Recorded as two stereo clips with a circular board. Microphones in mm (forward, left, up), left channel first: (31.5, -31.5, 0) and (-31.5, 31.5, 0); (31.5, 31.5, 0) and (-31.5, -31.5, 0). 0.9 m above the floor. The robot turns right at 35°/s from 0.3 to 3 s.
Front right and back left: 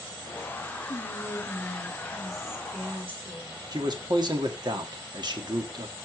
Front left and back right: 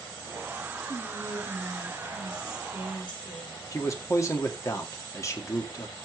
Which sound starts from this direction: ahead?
Whispering, at 0.9 s.